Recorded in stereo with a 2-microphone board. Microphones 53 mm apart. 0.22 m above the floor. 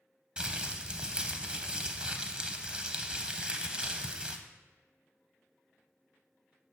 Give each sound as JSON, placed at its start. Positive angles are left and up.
{"t": 0.4, "sound": "crumpling", "side_deg": -20, "distance_m": 0.6}